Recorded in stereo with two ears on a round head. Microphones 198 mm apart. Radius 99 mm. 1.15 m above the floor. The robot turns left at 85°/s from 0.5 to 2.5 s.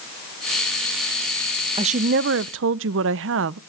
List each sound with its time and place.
1.8 s a woman speaking: 25° right, 0.6 m; by 3.6 s 90° right, 0.6 m